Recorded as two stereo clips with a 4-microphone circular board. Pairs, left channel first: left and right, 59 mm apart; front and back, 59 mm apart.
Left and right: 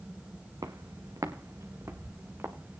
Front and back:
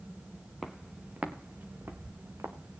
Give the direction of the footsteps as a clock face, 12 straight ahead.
3 o'clock.